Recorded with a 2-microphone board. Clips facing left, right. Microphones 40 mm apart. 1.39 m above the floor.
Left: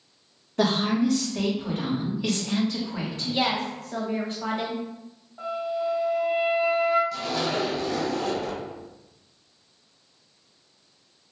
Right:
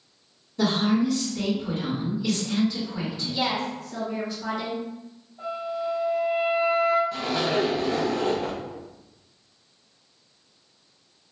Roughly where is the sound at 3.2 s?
Left.